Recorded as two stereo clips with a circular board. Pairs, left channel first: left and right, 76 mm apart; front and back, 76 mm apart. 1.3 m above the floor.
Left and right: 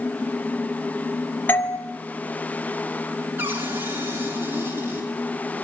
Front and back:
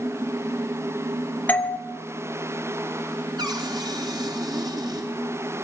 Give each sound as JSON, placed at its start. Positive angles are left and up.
{"t": 1.5, "sound": "a doorbell", "azimuth_deg": 50, "distance_m": 0.8}
{"t": 3.4, "sound": "a cupboard door", "azimuth_deg": -155, "distance_m": 3.5}